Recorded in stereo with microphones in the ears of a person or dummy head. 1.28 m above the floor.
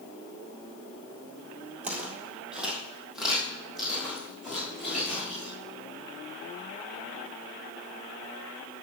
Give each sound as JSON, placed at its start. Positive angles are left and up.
{"t": 1.8, "sound": "footsteps", "side_deg": -10, "distance_m": 1.8}